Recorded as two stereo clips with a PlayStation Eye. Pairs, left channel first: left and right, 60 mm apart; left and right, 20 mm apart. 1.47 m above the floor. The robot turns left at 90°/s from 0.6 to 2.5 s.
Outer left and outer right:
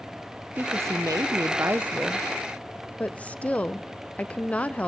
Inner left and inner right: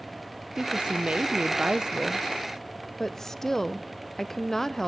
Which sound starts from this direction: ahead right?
A woman speaking, at 0.6 s.